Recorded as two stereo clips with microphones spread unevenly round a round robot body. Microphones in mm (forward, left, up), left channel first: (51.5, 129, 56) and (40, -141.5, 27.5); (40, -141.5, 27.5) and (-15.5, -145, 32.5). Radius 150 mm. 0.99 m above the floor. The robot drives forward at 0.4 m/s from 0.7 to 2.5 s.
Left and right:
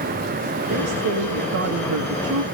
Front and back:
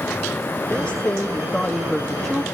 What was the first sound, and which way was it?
A woman speaking, 65° right.